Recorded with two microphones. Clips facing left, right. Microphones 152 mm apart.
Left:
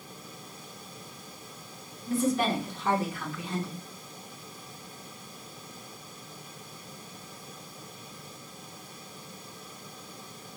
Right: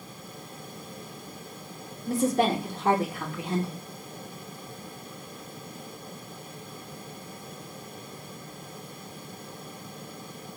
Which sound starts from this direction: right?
A woman speaking, at 2.1 s.